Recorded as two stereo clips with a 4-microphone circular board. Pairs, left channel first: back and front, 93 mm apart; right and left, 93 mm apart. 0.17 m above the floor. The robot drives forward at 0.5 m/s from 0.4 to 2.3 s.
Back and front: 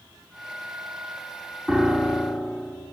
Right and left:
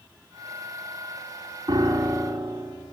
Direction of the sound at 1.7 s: 80° left.